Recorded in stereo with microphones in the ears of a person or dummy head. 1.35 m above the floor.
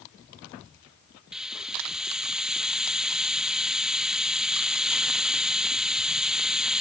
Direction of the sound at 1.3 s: 5° right (ahead or behind).